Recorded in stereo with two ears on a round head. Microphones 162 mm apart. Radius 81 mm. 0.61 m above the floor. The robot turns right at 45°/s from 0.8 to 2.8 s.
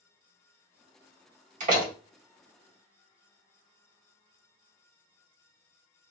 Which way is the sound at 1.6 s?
45° right (ahead or behind).